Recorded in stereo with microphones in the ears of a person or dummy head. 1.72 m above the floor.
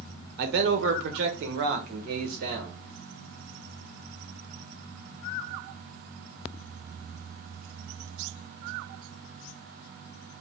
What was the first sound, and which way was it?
A man speaking, 55° right (ahead or behind).